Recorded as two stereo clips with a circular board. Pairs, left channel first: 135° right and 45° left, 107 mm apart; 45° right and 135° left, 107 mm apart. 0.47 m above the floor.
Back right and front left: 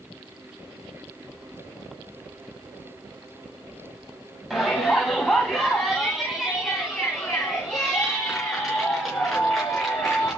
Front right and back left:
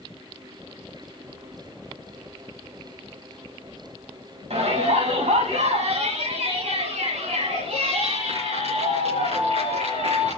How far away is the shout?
About 3 m.